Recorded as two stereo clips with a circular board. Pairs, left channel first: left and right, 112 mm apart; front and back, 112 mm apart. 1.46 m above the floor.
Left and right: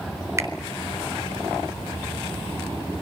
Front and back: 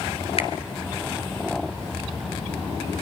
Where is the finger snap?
30° right, 3.5 m.